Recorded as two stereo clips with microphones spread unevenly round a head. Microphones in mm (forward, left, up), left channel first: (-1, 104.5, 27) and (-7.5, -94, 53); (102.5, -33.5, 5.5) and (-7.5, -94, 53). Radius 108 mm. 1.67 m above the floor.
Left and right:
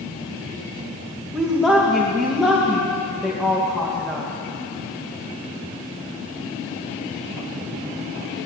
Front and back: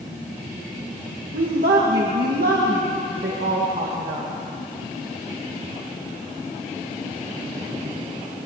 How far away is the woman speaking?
About 2.5 m.